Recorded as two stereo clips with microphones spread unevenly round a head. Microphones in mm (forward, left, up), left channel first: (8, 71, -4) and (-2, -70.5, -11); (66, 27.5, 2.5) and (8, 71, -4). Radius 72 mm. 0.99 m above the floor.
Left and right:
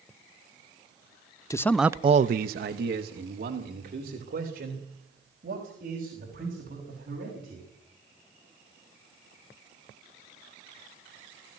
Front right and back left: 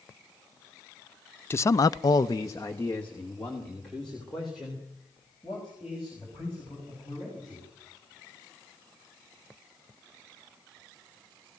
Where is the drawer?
No drawer in this recording.